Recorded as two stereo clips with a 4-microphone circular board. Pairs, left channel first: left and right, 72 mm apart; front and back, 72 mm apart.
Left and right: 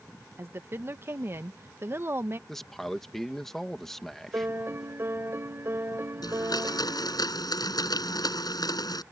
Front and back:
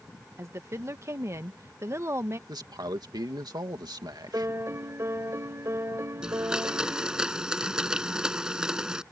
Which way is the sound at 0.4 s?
140° right.